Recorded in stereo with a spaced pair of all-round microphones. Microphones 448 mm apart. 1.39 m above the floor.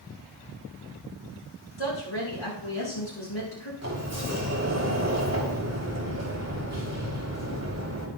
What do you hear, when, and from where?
1.8 s a woman speaking: 85° left, 6 m
3.8 s a sliding door: 35° right (ahead or behind), 2.5 m